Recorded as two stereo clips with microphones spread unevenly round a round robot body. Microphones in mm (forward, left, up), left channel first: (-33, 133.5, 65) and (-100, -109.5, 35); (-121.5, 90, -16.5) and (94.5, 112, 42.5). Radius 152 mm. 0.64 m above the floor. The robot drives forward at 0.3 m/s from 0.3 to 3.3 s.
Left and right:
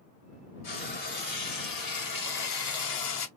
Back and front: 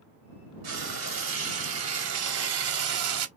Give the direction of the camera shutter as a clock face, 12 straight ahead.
I don't hear a camera shutter.